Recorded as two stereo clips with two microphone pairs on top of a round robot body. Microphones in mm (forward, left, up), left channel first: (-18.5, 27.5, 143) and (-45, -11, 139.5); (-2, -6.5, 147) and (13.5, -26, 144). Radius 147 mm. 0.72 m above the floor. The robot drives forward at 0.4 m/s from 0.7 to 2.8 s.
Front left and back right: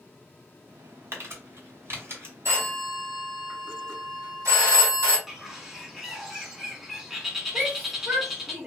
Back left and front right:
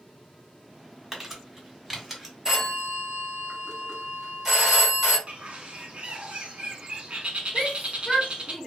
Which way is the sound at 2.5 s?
120° right.